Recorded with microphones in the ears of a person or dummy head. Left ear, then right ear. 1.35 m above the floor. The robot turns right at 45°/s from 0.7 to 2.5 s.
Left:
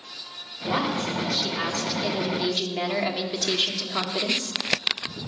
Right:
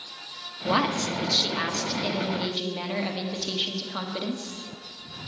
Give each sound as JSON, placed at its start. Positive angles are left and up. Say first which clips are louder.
{"t": 0.7, "sound": "a woman speaking", "louder": "right 1 dB", "azimuth_deg": -75, "distance_m": 1.5}